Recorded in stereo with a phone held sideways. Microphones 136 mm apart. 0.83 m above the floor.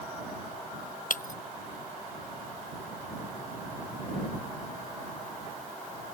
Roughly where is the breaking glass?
Left.